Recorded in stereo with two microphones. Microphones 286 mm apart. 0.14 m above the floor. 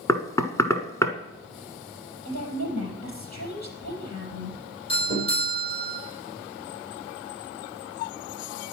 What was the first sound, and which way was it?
Knocking, 10° left (ahead or behind).